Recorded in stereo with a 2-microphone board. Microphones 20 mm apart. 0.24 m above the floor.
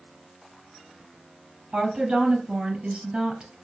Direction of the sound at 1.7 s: 55° right (ahead or behind).